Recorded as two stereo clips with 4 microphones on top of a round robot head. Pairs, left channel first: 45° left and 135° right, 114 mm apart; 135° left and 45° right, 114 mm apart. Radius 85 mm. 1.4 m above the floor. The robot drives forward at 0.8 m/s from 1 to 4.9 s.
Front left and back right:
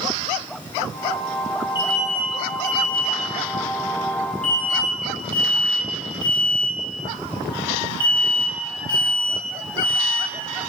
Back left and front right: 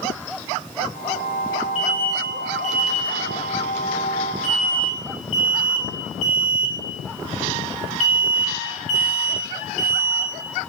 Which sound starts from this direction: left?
An alarm, at 1.8 s.